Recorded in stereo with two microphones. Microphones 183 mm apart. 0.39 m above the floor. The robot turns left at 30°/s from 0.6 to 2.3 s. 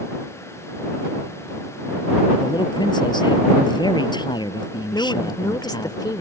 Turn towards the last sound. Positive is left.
turn(degrees=20)  # may be behind; listen again after turning